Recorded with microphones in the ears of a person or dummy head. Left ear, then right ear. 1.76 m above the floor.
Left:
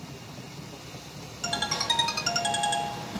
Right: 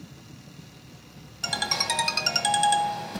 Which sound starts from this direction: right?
A ringtone, at 1.4 s.